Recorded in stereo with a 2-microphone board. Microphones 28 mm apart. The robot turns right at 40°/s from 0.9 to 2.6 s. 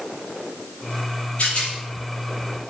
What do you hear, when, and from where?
1.4 s a rattle: 50° left (ahead or behind), 6 m; by 1.7 s 35° left (ahead or behind), 6 m